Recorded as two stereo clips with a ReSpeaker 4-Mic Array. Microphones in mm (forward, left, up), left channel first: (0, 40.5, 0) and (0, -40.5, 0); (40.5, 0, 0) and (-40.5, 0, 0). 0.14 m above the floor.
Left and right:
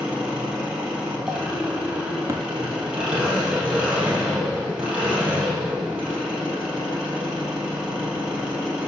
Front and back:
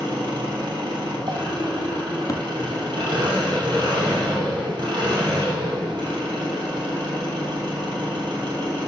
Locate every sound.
0.0 s an engine running: 165° right, 2.5 m
2.3 s tapping: 45° right, 0.7 m